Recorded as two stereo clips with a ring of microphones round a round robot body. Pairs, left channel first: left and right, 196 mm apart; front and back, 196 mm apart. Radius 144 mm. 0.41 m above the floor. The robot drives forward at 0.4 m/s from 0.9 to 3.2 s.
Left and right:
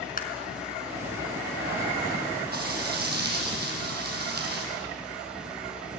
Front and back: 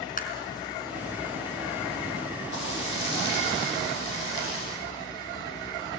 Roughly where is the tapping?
Ahead left.